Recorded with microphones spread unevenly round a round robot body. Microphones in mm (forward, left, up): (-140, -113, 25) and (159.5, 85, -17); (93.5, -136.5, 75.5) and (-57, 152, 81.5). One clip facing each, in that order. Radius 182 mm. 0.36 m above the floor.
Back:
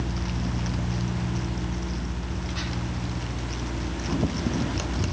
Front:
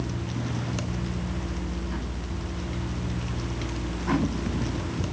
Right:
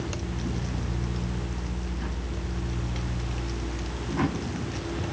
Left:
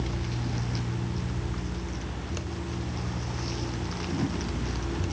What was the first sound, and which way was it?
Only background noise.